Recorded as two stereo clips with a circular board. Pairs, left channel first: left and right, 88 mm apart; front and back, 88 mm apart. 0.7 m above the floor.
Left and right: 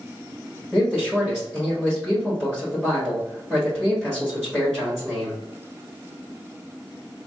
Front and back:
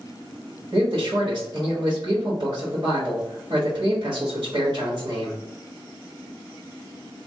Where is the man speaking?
Straight behind, 1.4 m.